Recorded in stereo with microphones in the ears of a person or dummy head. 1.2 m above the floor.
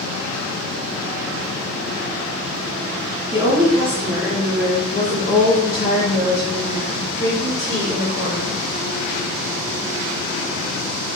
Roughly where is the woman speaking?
Centre.